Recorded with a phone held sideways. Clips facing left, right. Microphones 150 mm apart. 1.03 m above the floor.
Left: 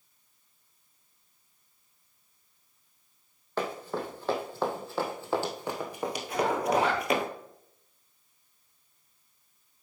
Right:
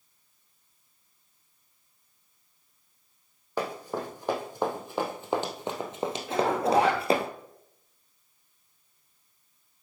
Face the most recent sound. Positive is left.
turn(degrees=-70)  # may be behind; listen again after turning